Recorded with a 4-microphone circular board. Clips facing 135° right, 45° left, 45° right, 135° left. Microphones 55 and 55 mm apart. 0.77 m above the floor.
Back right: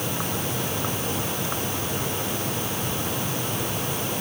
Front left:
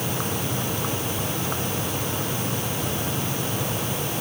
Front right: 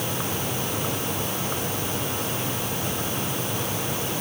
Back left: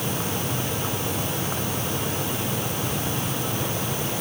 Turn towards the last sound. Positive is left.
No sound to turn to.